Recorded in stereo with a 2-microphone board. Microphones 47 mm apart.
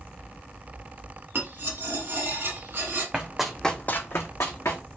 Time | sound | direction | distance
1.4 | cutlery clinking | 55° right (ahead or behind) | 1.2 m
3.1 | running footsteps | 20° right (ahead or behind) | 0.8 m